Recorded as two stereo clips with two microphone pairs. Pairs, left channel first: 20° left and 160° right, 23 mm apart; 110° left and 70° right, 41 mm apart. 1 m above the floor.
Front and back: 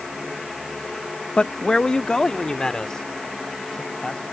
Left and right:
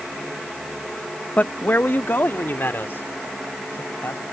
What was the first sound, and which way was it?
A man speaking, 65° left.